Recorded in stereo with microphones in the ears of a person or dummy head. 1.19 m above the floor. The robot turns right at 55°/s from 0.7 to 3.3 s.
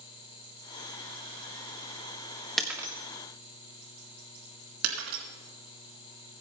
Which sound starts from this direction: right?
Breaking glass, at 4.8 s.